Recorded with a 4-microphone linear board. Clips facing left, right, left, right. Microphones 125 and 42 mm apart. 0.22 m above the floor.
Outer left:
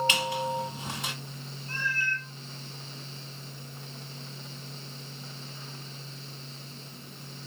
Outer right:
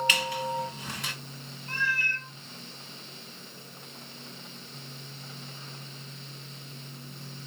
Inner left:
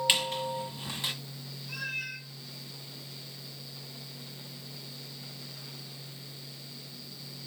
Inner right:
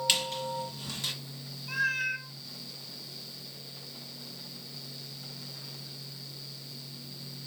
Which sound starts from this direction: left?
A squeak, at 0.1 s.